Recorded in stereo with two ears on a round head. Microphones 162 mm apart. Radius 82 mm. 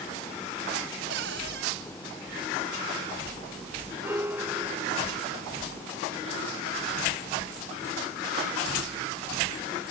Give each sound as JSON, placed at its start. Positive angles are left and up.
{"t": 1.1, "sound": "a cupboard door", "side_deg": -75}
{"t": 4.0, "sound": "a piano", "side_deg": -10}